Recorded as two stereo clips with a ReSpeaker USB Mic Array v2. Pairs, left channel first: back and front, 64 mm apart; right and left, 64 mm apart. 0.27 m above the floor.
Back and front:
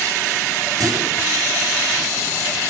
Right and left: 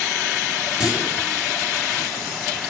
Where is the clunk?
10° left, 5.5 m.